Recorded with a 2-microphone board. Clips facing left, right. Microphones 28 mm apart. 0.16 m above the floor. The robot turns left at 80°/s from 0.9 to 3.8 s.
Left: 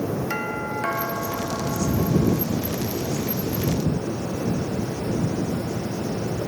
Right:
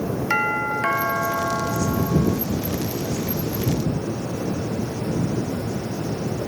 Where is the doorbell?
35° right; by 2.4 s 155° right.